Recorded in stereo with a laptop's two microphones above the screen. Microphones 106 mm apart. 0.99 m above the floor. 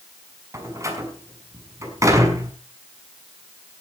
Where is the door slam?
30° right (ahead or behind), 6 m.